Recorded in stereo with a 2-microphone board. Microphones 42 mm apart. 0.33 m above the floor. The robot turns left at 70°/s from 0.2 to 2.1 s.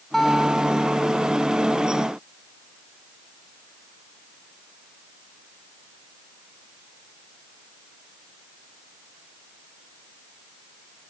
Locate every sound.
0.1 s a guitar: 5° left; by 1.1 s 60° right